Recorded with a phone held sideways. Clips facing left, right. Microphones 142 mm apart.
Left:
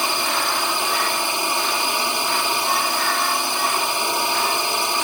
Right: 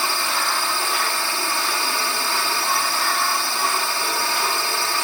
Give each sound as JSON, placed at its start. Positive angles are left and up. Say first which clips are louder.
{"t": 0.0, "sound": "a drone", "louder": "left 2 dB", "side_deg": 20}